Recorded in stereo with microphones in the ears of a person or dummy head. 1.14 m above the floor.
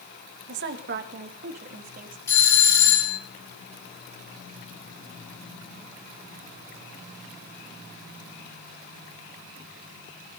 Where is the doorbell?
25° left (ahead or behind), 2.5 m.